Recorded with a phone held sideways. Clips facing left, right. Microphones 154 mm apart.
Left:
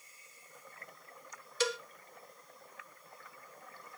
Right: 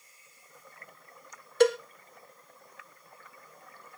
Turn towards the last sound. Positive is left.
turn(degrees=-55)  # may be behind; listen again after turning